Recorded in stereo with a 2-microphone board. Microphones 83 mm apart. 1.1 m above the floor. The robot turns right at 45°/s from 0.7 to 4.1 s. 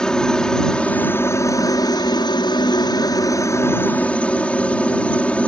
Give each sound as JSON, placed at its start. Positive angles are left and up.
{"t": 0.0, "sound": "a helicopter", "azimuth_deg": 10}